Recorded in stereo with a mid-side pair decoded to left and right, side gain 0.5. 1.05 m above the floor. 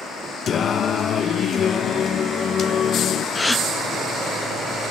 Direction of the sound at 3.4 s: 10° left.